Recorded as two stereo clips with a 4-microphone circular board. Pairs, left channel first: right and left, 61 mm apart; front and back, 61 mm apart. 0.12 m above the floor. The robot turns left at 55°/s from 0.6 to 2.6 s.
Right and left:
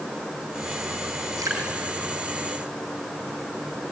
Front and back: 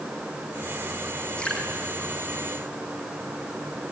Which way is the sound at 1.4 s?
75° left.